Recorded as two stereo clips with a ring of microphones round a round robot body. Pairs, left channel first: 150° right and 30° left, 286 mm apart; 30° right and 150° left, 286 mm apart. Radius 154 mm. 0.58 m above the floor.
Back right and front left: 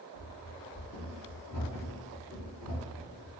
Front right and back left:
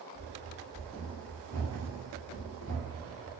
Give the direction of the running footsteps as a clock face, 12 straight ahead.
4 o'clock.